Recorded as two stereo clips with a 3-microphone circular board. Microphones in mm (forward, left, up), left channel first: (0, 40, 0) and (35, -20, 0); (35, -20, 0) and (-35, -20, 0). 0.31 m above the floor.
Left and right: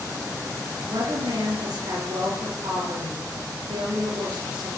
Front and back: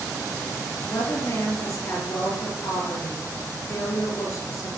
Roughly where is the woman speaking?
Ahead right.